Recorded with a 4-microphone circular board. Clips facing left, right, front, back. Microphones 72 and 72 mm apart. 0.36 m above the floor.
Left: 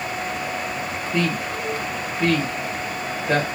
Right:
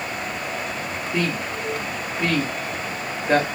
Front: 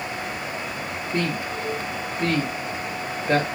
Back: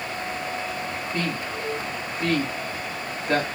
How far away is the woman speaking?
About 1.1 m.